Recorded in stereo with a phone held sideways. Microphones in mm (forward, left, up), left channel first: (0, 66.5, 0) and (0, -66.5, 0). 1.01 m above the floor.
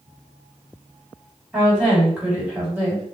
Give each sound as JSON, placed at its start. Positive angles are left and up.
{"t": 1.5, "sound": "a woman speaking", "side_deg": -10, "distance_m": 2.0}